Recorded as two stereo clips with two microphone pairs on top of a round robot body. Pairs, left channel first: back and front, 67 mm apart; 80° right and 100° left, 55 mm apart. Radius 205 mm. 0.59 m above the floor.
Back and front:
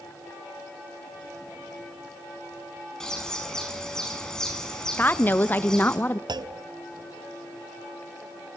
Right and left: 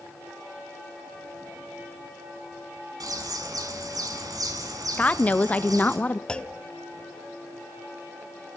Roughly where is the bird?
Left.